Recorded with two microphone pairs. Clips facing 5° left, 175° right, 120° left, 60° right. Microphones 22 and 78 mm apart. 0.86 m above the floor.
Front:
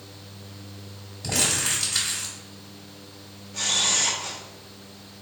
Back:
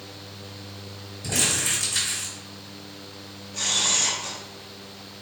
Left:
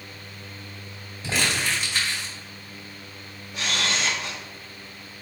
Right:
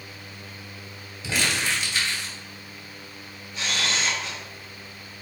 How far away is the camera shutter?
About 1.0 m.